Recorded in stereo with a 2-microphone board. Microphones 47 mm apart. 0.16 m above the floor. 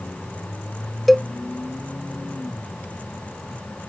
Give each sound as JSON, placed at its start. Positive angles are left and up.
{"t": 1.1, "sound": "a cowbell", "side_deg": 0}